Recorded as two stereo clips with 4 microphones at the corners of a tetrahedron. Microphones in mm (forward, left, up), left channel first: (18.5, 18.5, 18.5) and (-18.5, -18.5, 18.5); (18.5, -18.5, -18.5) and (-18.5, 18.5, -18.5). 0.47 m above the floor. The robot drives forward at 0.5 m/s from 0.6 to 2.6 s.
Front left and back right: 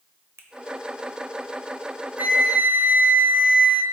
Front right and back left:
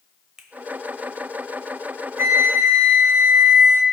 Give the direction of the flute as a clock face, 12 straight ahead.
6 o'clock.